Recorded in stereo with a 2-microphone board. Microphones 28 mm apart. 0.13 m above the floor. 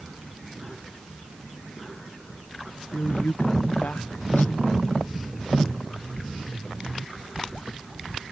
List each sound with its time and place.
2.9 s a woman speaking: 70° left (ahead or behind); by 5.0 s 80° left